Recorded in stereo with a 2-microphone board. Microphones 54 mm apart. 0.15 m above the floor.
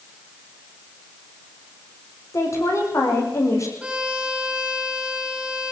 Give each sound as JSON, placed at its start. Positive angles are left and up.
{"t": 2.3, "sound": "a woman speaking", "side_deg": 65, "distance_m": 8.5}
{"t": 3.8, "sound": "a violin", "side_deg": -15, "distance_m": 6.0}